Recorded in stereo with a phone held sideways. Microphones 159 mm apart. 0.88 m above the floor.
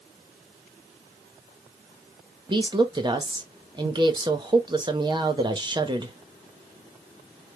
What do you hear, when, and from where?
2.5 s a woman speaking: 30° right (ahead or behind), 0.7 m